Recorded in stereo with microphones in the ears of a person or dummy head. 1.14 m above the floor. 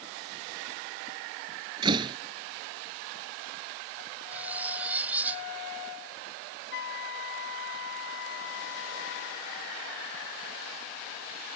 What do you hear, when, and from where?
1.8 s a door slam: 30° right (ahead or behind)
4.3 s cutlery clinking: 15° right (ahead or behind)
6.7 s a flute: 65° left (ahead or behind)